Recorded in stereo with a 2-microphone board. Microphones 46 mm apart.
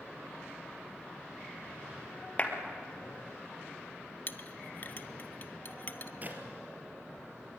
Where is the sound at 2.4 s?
30° left (ahead or behind), 2.5 m.